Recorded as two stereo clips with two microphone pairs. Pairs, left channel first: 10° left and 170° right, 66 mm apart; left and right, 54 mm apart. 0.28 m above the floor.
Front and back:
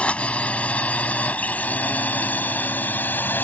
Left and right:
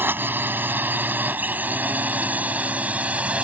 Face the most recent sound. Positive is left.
turn(degrees=-35)